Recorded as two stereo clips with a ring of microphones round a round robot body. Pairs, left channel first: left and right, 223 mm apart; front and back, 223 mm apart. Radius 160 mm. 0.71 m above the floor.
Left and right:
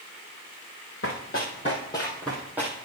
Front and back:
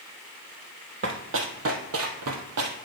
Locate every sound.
1.0 s running footsteps: 145° left, 1.8 m; by 2.8 s 170° right, 1.7 m